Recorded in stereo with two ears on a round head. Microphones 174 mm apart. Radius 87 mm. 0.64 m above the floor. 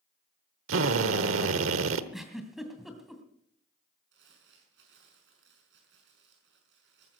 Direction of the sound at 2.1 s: Centre (ahead or behind).